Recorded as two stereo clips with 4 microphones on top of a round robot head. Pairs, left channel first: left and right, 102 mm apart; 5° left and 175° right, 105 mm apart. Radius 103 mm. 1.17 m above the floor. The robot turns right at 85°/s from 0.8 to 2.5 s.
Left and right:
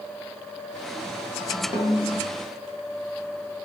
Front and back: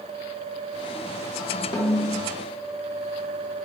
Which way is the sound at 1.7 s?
55° left.